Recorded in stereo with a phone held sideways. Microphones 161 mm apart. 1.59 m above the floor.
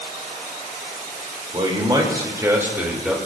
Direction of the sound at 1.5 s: 30° right (ahead or behind).